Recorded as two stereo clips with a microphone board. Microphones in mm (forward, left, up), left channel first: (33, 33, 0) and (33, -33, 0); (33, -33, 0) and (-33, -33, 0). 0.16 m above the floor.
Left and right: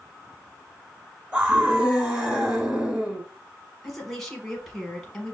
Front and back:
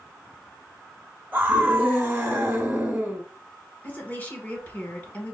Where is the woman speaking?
5° left, 1.1 m.